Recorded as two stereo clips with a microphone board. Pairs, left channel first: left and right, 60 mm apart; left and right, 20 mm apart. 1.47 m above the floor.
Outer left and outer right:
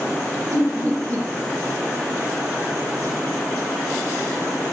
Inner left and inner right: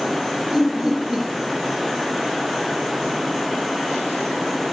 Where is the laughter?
50° right (ahead or behind), 1.0 m.